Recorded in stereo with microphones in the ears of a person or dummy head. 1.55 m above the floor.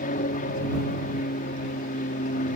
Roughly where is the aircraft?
Left.